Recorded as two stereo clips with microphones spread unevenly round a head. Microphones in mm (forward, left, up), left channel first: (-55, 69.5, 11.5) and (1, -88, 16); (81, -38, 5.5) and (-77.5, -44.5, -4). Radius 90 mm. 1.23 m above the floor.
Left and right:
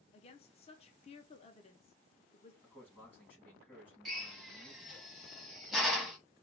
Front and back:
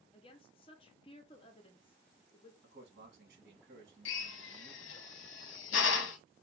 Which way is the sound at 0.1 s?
60° left.